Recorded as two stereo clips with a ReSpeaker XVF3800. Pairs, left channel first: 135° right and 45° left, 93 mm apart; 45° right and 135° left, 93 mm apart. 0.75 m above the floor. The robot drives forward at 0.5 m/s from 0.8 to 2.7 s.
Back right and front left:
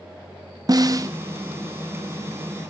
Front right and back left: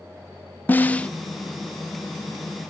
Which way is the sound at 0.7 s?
20° left.